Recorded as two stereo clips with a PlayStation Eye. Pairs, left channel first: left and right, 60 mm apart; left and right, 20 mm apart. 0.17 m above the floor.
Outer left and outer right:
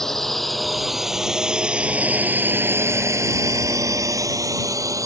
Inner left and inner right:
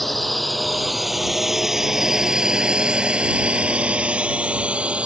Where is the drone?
5° left (ahead or behind); by 5.1 s 70° right (ahead or behind).